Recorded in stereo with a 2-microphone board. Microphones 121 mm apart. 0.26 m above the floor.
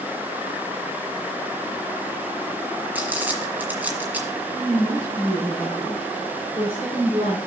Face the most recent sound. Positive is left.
turn(degrees=-50)  # may be behind; listen again after turning